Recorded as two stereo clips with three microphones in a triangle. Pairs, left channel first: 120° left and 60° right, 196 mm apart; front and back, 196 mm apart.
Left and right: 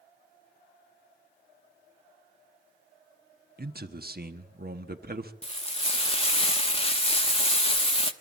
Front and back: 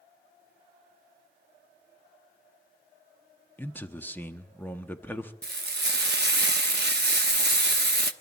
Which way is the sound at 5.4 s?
175° left.